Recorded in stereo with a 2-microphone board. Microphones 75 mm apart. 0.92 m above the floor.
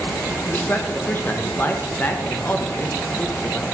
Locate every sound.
0.5 s a man speaking: 30° left (ahead or behind), 0.7 m